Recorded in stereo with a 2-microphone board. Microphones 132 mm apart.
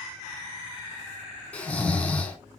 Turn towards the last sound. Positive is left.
turn(degrees=10)  # may be behind; listen again after turning